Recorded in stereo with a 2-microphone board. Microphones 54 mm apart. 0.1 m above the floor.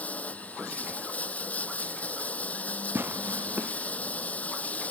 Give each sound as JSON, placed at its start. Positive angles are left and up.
{"t": 0.0, "sound": "running water", "side_deg": 30}
{"t": 3.0, "sound": "tearing paper", "side_deg": -40}